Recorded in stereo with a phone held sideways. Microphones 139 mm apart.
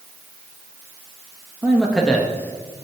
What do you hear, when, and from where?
1.6 s a man speaking: 10° right (ahead or behind), 1.3 m; by 2.8 s 25° left (ahead or behind), 1.9 m